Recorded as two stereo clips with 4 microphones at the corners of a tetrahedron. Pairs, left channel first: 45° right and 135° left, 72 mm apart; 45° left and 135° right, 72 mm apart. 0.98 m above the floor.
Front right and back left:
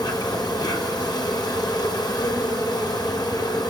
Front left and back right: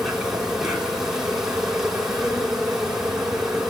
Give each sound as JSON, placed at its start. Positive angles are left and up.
{"t": 0.0, "sound": "an insect", "azimuth_deg": -50, "distance_m": 6.0}